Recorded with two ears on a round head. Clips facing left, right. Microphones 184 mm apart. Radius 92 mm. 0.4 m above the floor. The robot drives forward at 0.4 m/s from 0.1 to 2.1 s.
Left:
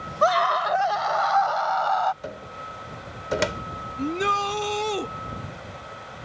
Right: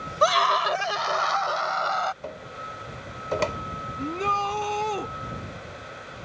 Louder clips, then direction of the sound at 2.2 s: Left 1 dB; 15° left (ahead or behind).